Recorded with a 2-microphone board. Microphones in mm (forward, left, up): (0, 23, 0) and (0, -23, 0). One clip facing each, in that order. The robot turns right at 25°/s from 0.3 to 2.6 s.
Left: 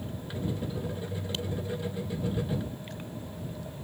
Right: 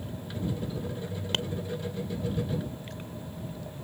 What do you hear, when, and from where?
1.3 s tapping: 65° right (ahead or behind); by 1.5 s 60° right (ahead or behind)